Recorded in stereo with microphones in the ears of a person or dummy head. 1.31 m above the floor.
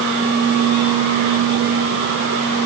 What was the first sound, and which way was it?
Only background noise.